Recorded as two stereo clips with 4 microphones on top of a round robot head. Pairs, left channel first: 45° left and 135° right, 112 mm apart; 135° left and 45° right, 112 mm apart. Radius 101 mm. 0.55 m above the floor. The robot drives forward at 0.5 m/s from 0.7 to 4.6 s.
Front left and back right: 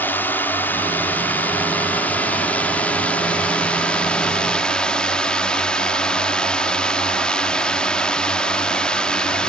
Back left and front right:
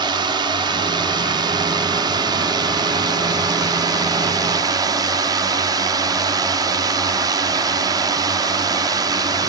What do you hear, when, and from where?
0.0 s a drone: 25° right; by 9.5 s 35° right